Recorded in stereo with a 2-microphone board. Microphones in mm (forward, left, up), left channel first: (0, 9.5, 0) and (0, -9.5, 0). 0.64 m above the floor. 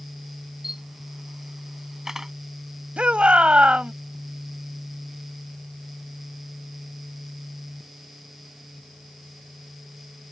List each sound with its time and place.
0.6 s a camera shutter: 25° right (ahead or behind)
3.0 s a shout: 60° right (ahead or behind)